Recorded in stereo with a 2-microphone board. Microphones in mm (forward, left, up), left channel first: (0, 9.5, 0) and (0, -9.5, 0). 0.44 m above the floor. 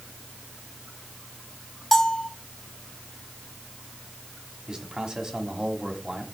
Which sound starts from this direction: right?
A man speaking, at 4.7 s.